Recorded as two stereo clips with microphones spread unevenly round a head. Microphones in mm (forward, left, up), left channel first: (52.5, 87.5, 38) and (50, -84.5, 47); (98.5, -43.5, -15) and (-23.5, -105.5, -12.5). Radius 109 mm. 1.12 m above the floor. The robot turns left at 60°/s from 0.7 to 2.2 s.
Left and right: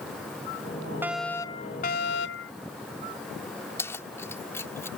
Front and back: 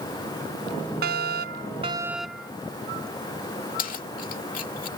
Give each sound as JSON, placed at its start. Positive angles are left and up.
{"t": 1.0, "sound": "a fire alarm", "azimuth_deg": -170}
{"t": 3.8, "sound": "keys jangling", "azimuth_deg": 15}